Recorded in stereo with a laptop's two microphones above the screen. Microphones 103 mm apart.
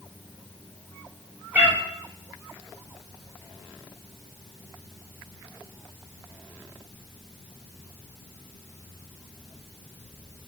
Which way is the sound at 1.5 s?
15° right (ahead or behind).